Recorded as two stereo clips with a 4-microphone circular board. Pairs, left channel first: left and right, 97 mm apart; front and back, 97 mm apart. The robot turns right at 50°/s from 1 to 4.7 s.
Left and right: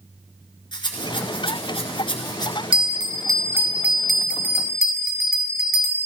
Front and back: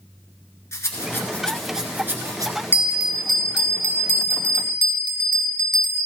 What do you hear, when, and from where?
0.7 s a rattle: 60° left, 1.4 m; by 2.5 s 135° left, 1.4 m
2.7 s a bell: 65° right, 0.9 m; by 6.0 s 30° left, 0.9 m